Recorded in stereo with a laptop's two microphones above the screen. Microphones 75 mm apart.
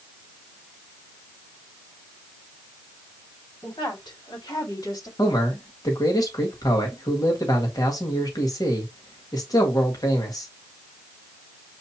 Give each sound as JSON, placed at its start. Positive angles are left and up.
{"t": 3.6, "sound": "a woman speaking", "side_deg": 80, "distance_m": 3.0}
{"t": 5.2, "sound": "a man speaking", "side_deg": 60, "distance_m": 2.0}